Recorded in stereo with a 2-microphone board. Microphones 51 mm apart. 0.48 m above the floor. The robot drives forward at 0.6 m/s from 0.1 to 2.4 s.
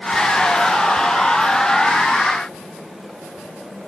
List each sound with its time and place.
Only background noise.